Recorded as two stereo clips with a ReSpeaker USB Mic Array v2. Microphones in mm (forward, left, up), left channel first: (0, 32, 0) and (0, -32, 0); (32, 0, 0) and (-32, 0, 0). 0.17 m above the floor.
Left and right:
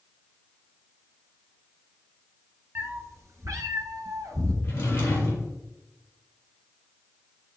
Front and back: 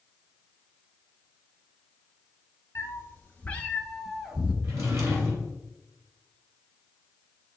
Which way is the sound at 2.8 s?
40° right.